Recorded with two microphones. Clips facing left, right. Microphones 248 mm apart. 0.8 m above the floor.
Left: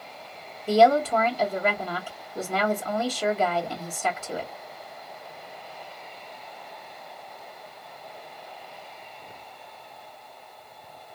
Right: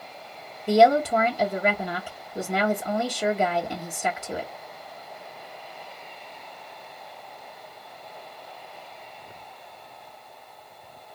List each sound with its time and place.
0.7 s a woman speaking: 15° right (ahead or behind), 0.6 m